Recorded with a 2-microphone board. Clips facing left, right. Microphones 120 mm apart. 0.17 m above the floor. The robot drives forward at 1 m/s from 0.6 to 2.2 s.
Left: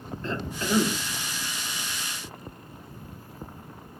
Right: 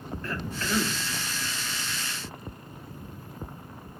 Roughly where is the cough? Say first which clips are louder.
Left 4 dB; left.